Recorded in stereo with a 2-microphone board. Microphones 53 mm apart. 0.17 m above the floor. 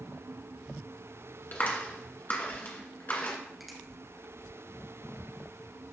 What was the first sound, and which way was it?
A clap, 40° left (ahead or behind).